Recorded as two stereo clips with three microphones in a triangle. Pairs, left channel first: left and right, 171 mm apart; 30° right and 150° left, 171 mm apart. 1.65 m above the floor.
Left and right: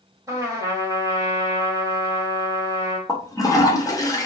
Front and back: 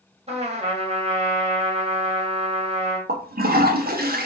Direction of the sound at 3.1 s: 155° left.